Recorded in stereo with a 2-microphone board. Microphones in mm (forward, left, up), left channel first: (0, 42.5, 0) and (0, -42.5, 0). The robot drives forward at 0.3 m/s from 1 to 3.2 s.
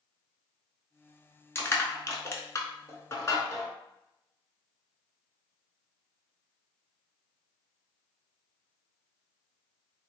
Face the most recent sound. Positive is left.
turn(degrees=35)  # may be behind; listen again after turning